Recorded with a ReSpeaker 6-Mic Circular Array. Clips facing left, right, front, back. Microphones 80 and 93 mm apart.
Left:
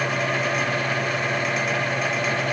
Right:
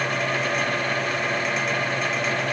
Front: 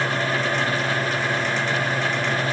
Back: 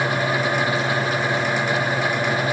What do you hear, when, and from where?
Only background noise.